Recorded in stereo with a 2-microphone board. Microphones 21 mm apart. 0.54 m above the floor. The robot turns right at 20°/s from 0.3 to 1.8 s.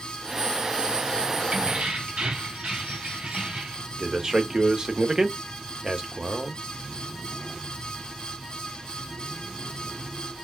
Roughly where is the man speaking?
Right.